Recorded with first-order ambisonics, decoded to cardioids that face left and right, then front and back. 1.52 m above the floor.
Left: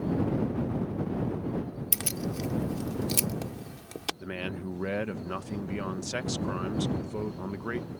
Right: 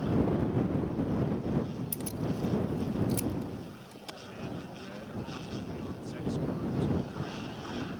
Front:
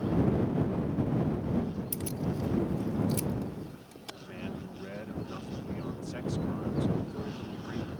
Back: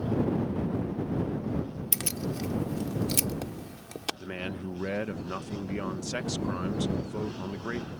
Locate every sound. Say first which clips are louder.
1.9 s keys jangling: left 5 dB, back 7 dB; 135° left
4.2 s a man speaking: left 6 dB, back 5 dB; 125° left